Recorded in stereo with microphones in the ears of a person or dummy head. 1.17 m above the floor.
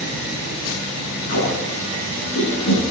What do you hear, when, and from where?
1.3 s tape being pulled: 55° left (ahead or behind), 8.5 m